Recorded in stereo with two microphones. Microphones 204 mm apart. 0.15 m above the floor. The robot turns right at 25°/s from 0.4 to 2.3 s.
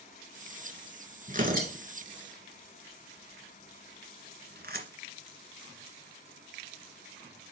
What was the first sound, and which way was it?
Tearing paper, 40° right (ahead or behind).